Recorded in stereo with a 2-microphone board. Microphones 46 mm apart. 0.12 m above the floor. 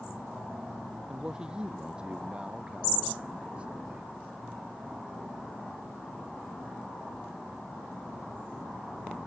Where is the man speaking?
15° right (ahead or behind); by 4.1 s 25° right (ahead or behind).